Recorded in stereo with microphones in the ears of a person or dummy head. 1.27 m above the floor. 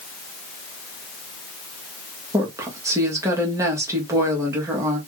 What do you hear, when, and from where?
2.3 s a woman speaking: 10° right (ahead or behind), 0.9 m